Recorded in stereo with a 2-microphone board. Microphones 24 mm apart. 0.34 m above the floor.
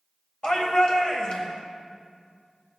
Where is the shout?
35° left (ahead or behind), 1.7 m.